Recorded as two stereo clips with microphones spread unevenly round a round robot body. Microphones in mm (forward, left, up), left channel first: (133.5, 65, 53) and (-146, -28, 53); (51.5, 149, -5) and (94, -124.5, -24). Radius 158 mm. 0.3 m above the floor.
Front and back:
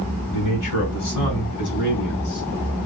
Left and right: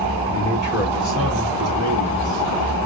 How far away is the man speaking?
About 3.5 m.